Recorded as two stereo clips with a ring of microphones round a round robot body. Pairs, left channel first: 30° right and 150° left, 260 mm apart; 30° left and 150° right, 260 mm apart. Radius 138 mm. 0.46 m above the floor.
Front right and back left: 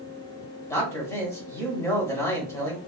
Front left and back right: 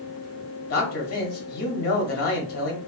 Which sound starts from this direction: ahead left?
A man speaking, at 0.7 s.